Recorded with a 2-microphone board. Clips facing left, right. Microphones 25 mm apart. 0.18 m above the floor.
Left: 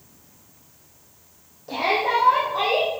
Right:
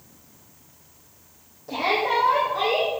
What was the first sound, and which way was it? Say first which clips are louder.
A shout: left 1 dB; 15° left (ahead or behind).